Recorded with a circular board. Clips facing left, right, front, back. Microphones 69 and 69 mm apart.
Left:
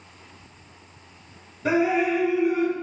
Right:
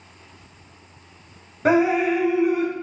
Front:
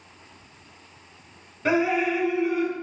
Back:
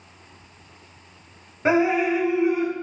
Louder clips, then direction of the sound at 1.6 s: Right 3 dB, back 3 dB; 115° right.